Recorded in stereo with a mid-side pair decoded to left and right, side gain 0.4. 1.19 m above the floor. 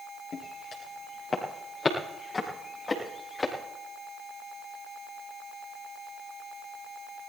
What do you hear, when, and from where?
0.3 s footsteps: 55° left, 10 m; by 3.5 s 30° left, 10 m